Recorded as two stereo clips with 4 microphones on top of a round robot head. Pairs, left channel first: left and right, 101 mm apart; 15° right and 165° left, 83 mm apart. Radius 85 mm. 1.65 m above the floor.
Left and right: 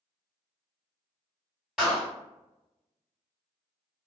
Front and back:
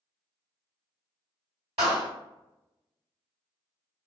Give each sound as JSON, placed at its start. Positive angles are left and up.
{"t": 1.8, "sound": "a clap", "azimuth_deg": 180, "distance_m": 1.8}